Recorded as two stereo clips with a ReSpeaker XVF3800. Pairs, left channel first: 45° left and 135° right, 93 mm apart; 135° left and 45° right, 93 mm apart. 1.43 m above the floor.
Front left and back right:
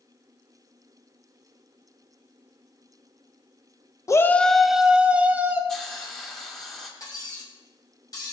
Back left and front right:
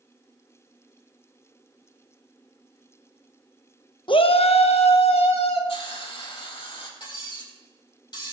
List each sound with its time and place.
4.1 s a shout: 100° left, 0.5 m; by 5.6 s 155° left, 1.6 m
5.7 s a hiss: 130° left, 2.5 m
7.0 s cutlery clinking: 95° left, 4.5 m